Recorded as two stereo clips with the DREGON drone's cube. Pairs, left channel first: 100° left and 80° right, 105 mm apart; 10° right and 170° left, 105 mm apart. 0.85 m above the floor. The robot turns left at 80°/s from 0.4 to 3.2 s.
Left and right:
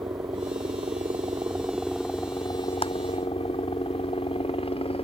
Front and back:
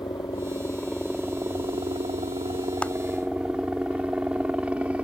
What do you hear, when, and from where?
0.0 s a helicopter: 50° right; by 5.0 s 90° left
2.8 s a clap: 70° left; by 2.9 s 60° left